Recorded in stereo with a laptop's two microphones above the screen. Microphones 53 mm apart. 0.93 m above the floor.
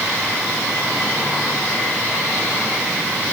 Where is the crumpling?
No crumpling in this recording.